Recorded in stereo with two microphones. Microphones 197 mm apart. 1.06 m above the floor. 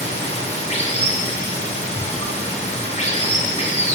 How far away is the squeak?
About 4.5 m.